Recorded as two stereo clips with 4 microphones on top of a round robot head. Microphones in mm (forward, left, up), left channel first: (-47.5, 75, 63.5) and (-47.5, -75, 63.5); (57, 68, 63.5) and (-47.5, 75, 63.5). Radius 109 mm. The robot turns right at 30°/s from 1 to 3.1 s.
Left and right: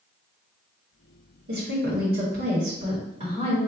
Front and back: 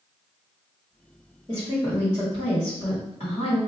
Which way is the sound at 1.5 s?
85° right.